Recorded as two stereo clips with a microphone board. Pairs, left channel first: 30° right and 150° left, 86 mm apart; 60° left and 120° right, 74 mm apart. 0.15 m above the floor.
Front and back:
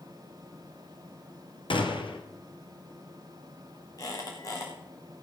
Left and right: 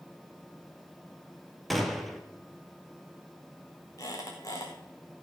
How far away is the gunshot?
About 1.3 m.